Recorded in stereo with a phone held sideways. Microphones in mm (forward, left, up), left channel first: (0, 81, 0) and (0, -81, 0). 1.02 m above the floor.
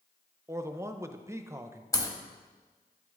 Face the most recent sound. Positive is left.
turn(degrees=20)  # may be behind; listen again after turning